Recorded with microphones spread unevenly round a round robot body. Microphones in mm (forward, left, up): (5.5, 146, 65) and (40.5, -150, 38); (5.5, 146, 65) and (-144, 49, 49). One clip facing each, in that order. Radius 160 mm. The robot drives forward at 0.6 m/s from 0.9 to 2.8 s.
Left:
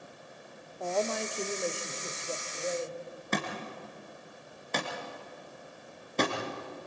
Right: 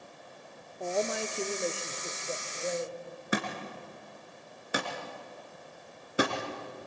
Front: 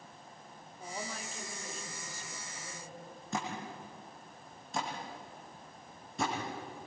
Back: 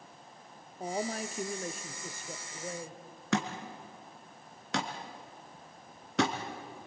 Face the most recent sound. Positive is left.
turn(degrees=-165)